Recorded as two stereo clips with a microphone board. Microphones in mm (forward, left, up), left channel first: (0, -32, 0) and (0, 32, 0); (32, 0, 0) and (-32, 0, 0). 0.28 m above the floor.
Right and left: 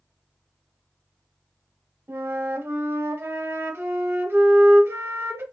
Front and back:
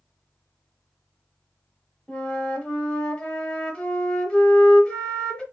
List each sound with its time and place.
2.1 s a flute: 70° left, 0.8 m